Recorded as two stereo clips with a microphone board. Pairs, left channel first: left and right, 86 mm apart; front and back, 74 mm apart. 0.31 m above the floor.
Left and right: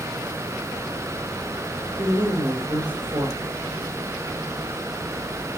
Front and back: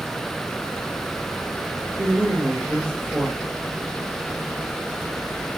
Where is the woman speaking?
120° right, 7.5 m.